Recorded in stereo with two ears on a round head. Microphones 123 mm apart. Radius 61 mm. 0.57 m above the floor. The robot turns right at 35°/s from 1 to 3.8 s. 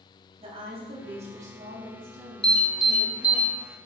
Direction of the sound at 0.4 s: 130° right.